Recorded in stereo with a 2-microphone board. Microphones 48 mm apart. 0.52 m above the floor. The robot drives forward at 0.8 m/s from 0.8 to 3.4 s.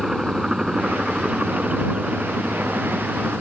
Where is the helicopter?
10° right (ahead or behind); by 3.4 s 30° right (ahead or behind).